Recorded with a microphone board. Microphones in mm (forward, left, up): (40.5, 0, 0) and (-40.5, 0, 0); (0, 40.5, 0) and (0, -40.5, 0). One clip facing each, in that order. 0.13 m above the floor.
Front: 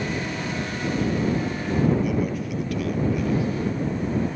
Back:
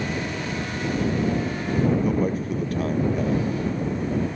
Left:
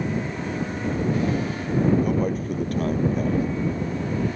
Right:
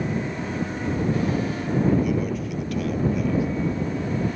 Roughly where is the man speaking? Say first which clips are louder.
Back 2 dB, left 1 dB; behind left.